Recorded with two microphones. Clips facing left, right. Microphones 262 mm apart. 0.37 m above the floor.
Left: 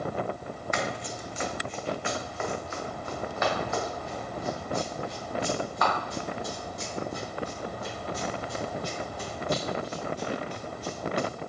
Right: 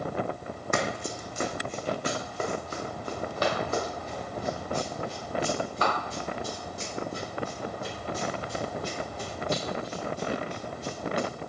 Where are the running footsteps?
55° right (ahead or behind), 0.9 m; by 11.3 s 30° right (ahead or behind), 6.5 m.